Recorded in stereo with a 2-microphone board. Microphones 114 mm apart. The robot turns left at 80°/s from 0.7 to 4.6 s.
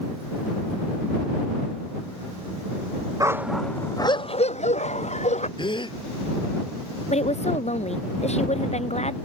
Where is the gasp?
45° left (ahead or behind).